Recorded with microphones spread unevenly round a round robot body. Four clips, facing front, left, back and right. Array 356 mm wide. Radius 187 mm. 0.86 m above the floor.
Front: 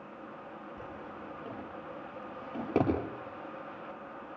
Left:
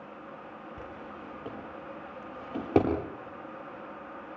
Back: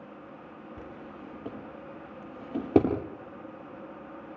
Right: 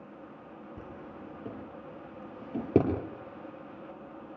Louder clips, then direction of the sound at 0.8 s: Left 1 dB, even; 135° right.